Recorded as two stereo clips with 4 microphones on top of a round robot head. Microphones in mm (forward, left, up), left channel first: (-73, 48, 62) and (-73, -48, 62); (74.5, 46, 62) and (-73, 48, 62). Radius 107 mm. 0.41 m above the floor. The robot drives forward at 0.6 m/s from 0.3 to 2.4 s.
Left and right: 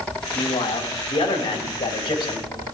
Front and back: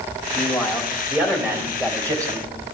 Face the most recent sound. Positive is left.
turn(degrees=120)